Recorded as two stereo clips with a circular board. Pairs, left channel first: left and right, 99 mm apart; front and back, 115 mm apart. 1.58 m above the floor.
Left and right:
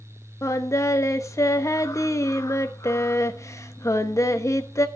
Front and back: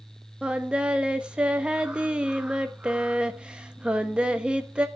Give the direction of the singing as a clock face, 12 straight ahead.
8 o'clock.